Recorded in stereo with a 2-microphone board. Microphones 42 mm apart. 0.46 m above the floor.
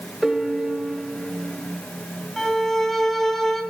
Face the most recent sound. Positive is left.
turn(degrees=5)  # may be behind; listen again after turning